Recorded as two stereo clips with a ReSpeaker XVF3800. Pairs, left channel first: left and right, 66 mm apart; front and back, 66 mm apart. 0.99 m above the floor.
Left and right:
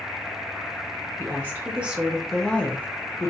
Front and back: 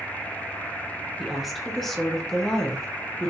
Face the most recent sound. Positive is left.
turn(degrees=75)